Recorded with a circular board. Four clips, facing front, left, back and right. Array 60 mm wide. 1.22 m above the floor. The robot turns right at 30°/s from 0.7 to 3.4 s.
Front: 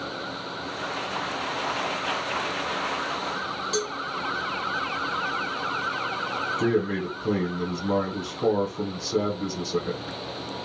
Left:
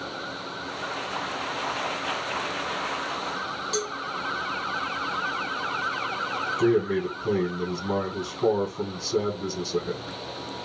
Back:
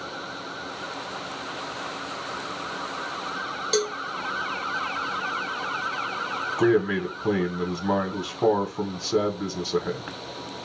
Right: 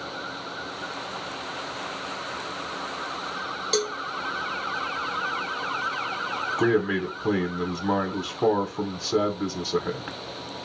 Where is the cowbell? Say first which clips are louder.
Right 5 dB, back 5 dB; 130° right, 0.6 m.